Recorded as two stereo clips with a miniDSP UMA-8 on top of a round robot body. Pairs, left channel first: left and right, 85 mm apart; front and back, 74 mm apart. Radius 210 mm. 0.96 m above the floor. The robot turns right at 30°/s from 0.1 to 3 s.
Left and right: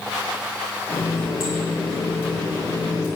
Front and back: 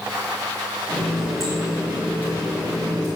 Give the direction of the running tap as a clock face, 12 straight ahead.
10 o'clock.